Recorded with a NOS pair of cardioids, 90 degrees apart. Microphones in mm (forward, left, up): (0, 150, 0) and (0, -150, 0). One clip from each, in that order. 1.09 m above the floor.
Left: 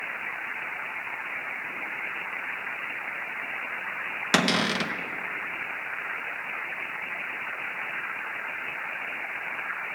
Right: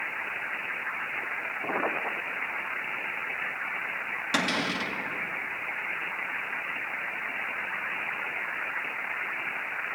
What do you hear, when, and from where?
4.3 s a cupboard door: 50° left, 0.9 m